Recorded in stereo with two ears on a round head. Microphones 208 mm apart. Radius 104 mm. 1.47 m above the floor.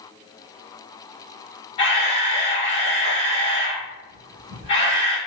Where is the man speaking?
No man speaking in this recording.